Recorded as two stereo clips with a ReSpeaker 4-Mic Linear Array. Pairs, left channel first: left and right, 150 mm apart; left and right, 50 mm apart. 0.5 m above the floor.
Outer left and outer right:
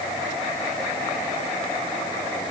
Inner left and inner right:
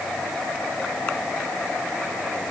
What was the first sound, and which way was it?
Only background noise.